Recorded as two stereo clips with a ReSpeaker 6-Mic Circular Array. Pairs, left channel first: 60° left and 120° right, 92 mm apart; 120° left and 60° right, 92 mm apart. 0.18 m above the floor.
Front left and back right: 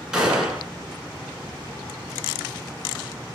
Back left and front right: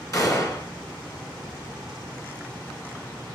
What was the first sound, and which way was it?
A gunshot, 160° left.